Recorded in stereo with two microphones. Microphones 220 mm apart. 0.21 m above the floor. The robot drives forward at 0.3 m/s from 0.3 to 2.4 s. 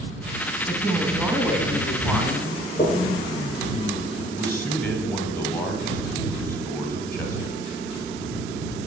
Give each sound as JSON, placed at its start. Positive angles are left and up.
{"t": 0.7, "sound": "a woman speaking", "side_deg": -10, "distance_m": 1.2}
{"t": 2.8, "sound": "knocking", "side_deg": 20, "distance_m": 3.0}
{"t": 4.3, "sound": "a man speaking", "side_deg": 10, "distance_m": 1.6}